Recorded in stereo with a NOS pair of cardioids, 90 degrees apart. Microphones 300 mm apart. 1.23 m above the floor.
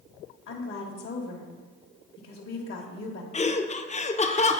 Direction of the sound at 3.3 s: 25° left.